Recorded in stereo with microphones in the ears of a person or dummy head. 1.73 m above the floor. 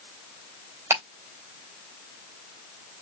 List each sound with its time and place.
0.9 s ticking: 15° right (ahead or behind), 3 m